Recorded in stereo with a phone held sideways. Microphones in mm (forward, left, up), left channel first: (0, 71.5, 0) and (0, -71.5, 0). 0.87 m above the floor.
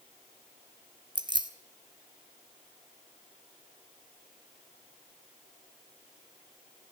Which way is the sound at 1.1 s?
35° right (ahead or behind).